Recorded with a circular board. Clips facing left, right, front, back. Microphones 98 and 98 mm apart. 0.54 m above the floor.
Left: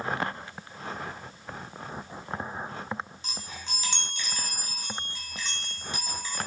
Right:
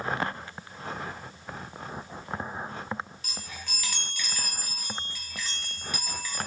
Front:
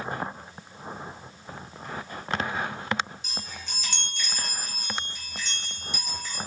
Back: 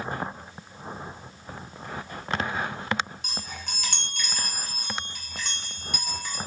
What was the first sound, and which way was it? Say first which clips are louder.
A chime: left 1 dB, back 2 dB; 155° left.